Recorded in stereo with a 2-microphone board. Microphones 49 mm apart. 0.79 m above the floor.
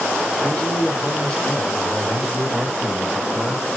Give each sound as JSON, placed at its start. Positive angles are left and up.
{"t": 0.4, "sound": "a man speaking", "side_deg": 25, "distance_m": 3.5}